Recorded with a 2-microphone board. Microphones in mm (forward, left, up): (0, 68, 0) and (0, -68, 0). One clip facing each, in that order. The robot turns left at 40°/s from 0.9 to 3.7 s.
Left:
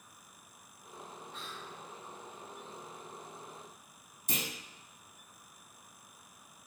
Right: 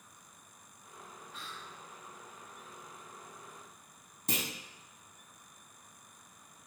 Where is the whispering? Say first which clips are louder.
Even; 35° left (ahead or behind), 1.1 m; by 1.8 s 40° left (ahead or behind), 1.1 m.